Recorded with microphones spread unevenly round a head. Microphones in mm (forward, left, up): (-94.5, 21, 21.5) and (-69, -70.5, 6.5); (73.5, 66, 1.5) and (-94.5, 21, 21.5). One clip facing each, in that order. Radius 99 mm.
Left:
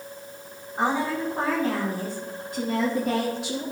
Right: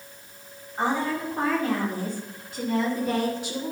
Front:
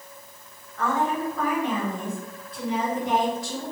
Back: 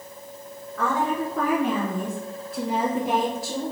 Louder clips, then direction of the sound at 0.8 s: Left 1 dB, back 1 dB; straight behind.